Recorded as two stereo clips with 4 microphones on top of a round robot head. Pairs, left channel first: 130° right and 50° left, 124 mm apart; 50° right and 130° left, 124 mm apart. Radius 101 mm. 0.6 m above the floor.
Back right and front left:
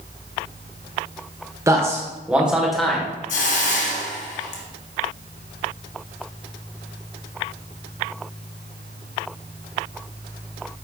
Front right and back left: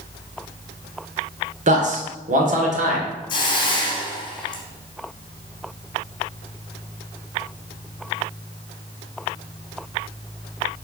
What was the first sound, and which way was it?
A man speaking, 115° left.